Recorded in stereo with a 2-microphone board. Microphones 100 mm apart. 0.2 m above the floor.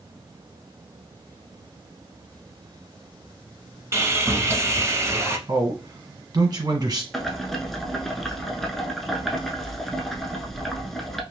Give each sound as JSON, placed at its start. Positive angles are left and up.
{"t": 3.9, "sound": "sawing", "side_deg": -25, "distance_m": 0.6}
{"t": 5.5, "sound": "a man speaking", "side_deg": -45, "distance_m": 1.3}
{"t": 7.1, "sound": "boiling", "side_deg": 5, "distance_m": 0.7}